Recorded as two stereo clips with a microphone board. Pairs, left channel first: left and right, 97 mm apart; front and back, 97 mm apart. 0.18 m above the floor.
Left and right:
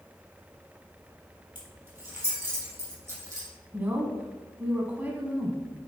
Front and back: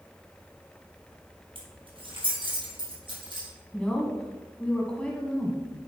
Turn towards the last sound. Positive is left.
turn(degrees=-60)